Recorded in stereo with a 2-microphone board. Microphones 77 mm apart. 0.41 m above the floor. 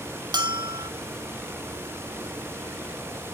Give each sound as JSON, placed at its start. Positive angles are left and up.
{"t": 0.3, "sound": "a bell", "side_deg": -70, "distance_m": 0.9}